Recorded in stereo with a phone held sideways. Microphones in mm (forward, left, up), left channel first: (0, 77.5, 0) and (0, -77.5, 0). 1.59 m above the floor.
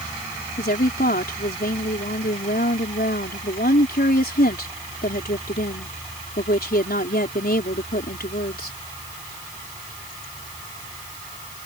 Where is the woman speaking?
90° left.